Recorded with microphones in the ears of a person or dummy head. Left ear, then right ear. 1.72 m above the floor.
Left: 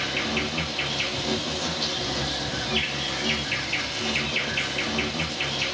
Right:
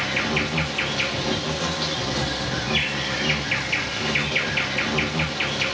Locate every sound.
0.0 s an insect: 30° right (ahead or behind), 0.9 m